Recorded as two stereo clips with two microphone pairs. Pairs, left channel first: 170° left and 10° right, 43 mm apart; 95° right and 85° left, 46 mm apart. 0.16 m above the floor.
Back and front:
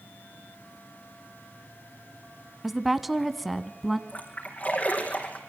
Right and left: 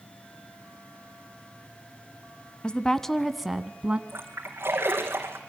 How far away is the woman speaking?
About 1.1 m.